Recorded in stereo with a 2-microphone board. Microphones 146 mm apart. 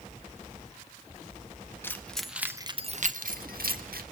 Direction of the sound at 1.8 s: 15° left (ahead or behind).